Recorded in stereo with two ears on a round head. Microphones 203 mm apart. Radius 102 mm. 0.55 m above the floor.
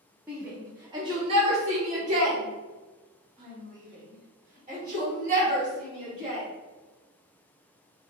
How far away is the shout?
About 1.1 m.